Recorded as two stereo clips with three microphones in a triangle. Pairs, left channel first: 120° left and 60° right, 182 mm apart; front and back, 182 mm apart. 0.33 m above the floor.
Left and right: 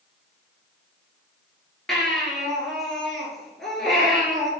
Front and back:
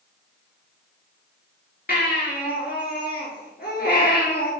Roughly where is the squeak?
No squeak in this recording.